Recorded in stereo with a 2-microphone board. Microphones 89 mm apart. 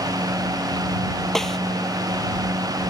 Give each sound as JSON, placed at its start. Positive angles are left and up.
{"t": 1.4, "sound": "a snare drum", "side_deg": 5}